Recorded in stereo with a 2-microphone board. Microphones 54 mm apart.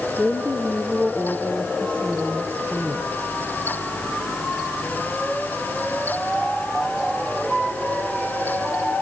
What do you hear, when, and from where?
0.2 s a woman speaking: 20° left (ahead or behind), 4.5 m